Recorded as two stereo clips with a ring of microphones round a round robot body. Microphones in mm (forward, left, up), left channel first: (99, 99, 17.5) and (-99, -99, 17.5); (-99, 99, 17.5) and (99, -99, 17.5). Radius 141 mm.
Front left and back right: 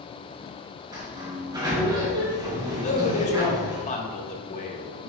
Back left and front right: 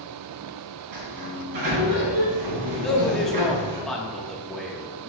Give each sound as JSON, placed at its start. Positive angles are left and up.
{"t": 0.9, "sound": "a sliding door", "azimuth_deg": -60, "distance_m": 2.0}
{"t": 2.8, "sound": "a man speaking", "azimuth_deg": 50, "distance_m": 1.1}